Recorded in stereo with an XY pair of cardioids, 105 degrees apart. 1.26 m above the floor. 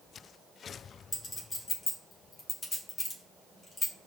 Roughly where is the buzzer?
No buzzer in this recording.